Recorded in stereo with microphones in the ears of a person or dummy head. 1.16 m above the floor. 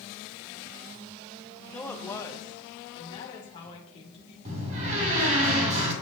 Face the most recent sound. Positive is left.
turn(degrees=-40)  # may be behind; listen again after turning